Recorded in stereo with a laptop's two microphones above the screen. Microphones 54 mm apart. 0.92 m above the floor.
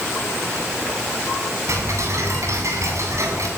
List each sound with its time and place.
1.7 s ticking: 65° right (ahead or behind), 8 m